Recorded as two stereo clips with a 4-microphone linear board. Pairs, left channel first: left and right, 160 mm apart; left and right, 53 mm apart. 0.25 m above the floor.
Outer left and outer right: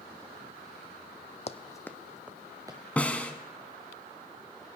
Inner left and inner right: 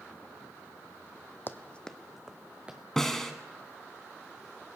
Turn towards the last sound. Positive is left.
turn(degrees=10)  # may be behind; listen again after turning